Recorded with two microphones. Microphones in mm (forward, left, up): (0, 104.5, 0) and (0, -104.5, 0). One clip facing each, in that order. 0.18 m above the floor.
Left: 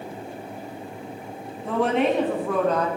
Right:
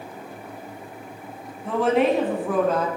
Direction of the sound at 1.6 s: Centre (ahead or behind).